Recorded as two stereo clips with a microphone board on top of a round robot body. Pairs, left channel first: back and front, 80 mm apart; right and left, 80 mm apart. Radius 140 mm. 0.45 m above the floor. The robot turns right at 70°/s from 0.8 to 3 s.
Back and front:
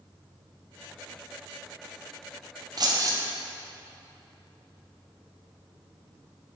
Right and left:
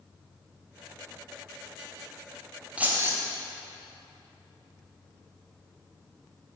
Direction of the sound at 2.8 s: 20° left.